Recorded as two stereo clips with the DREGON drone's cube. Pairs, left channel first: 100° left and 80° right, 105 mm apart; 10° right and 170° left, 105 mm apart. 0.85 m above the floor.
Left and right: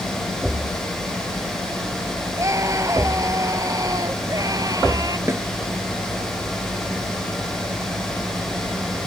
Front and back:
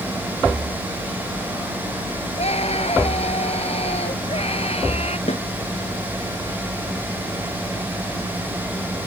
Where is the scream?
20° right; by 5.2 s 25° right.